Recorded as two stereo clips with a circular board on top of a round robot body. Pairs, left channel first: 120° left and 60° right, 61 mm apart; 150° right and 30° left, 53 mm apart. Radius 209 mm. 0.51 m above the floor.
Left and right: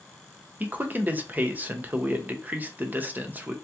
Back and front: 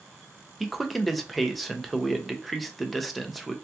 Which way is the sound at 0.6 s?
60° right.